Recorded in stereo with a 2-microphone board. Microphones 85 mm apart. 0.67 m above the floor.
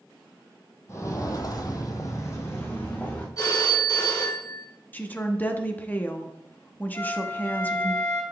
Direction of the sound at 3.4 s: 45° left (ahead or behind).